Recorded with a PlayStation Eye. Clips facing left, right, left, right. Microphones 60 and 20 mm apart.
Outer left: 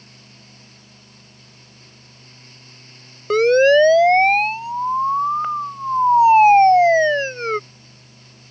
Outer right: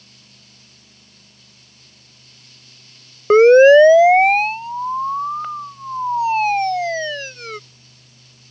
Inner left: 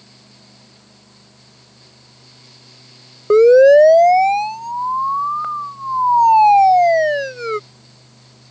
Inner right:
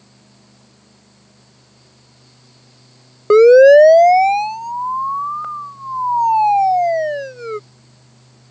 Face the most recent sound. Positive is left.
turn(degrees=40)  # may be behind; listen again after turning